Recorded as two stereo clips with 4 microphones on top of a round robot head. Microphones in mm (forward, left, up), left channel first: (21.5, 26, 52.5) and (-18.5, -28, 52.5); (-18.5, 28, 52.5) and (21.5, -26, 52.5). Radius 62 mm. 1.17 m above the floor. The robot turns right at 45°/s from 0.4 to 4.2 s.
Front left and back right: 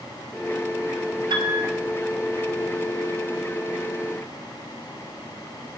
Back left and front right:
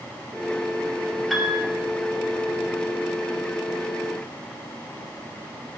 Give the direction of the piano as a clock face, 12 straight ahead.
5 o'clock.